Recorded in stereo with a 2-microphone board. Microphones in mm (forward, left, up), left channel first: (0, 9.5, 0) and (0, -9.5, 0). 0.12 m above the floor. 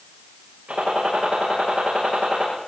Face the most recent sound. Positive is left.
turn(degrees=-80)